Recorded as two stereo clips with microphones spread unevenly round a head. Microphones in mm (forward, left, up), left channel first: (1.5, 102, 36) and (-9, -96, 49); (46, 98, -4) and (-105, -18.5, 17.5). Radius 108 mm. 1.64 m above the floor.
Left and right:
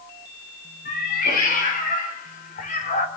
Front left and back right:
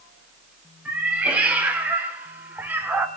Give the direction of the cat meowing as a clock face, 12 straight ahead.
7 o'clock.